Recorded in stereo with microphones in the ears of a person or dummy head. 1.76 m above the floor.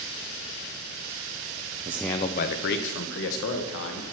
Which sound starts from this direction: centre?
A man speaking, at 1.9 s.